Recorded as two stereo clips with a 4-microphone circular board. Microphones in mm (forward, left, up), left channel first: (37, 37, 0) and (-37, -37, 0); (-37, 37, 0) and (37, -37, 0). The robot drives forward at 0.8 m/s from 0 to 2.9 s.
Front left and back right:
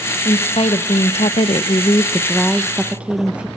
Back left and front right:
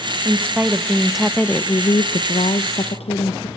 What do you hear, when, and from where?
0.2 s a woman speaking: 20° left, 1.4 m; by 3.5 s 145° left, 1.0 m